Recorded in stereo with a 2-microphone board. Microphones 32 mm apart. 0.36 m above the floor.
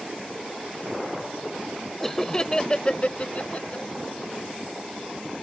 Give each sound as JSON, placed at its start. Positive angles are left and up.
{"t": 2.0, "sound": "laughter", "side_deg": 5}